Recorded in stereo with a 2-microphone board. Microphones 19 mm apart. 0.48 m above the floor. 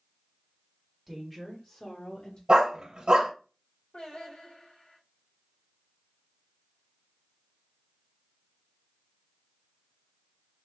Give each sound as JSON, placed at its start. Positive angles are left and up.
{"t": 1.1, "sound": "a woman speaking", "side_deg": -10, "distance_m": 1.3}
{"t": 2.5, "sound": "a dog barking", "side_deg": -60, "distance_m": 1.1}
{"t": 3.9, "sound": "singing", "side_deg": 85, "distance_m": 3.0}